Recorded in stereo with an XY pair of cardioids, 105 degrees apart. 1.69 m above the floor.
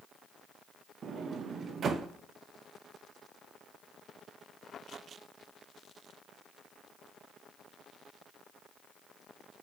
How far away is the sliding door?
About 0.5 m.